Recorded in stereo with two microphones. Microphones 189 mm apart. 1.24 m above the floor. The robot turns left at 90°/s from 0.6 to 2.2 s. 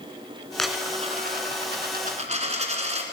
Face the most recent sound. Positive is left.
turn(degrees=-140)